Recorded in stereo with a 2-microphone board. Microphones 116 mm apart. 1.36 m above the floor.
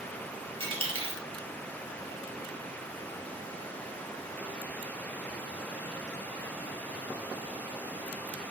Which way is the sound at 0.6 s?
50° right (ahead or behind).